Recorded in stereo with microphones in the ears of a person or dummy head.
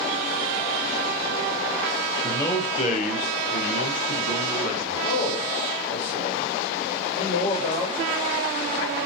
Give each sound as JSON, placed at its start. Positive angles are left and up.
{"t": 2.2, "sound": "a man speaking", "side_deg": 10, "distance_m": 0.7}
{"t": 5.0, "sound": "a man speaking", "side_deg": 40, "distance_m": 2.5}